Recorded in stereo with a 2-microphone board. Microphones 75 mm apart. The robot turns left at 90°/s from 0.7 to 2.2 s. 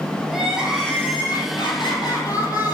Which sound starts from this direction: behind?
Crying, at 0.3 s.